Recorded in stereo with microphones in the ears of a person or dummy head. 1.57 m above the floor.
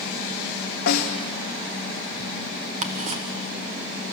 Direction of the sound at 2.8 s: 40° right (ahead or behind).